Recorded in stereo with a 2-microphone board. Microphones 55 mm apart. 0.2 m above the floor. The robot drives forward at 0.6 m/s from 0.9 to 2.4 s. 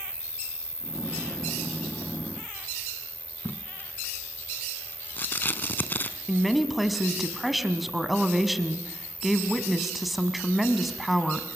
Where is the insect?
50° left (ahead or behind), 0.8 m; by 11.6 s 25° left (ahead or behind), 1.5 m.